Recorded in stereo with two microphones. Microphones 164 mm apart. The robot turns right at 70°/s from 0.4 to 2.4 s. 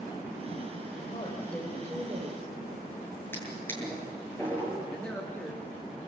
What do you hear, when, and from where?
1.1 s a woman speaking: 135° left, 3 m; by 2.5 s 130° right, 3 m
3.3 s a drawer: 15° left (ahead or behind), 8.5 m
4.9 s a man speaking: 10° left (ahead or behind), 1.9 m